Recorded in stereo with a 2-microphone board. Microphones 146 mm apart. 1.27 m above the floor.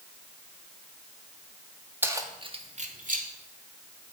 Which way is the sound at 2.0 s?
15° right (ahead or behind).